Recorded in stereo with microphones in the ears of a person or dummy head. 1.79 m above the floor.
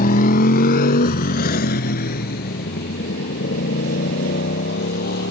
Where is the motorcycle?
45° left (ahead or behind); by 5.3 s 55° left (ahead or behind).